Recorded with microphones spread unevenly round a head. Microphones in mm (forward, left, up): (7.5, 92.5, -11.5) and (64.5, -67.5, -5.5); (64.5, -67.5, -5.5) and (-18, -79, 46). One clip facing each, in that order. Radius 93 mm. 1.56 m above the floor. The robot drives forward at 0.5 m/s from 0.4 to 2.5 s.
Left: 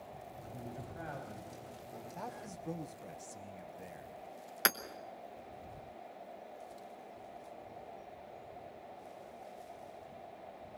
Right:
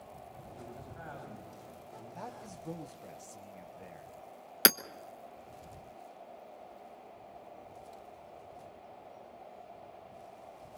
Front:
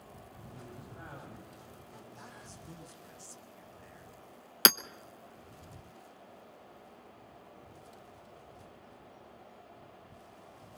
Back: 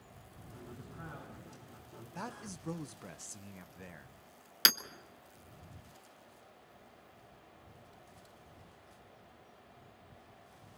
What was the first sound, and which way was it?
A man speaking, 50° left.